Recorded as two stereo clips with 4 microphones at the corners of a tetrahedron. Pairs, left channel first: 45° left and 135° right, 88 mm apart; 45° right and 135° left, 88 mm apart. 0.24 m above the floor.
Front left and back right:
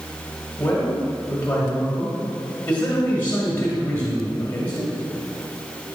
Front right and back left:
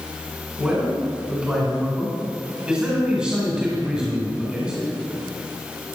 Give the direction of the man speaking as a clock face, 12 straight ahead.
9 o'clock.